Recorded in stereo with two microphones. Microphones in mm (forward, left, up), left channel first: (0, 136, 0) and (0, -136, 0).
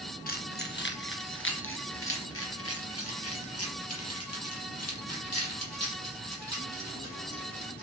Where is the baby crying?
No baby crying in this recording.